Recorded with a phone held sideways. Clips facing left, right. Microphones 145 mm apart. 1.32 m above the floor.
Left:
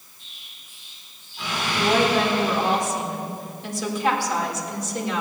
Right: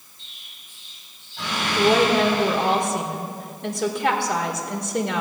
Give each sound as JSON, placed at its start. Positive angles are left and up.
{"t": 0.2, "sound": "an explosion", "side_deg": -85, "distance_m": 5.0}
{"t": 1.8, "sound": "a woman speaking", "side_deg": -60, "distance_m": 1.8}